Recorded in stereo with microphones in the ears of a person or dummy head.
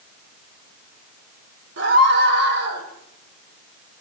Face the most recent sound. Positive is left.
turn(degrees=-60)  # may be behind; listen again after turning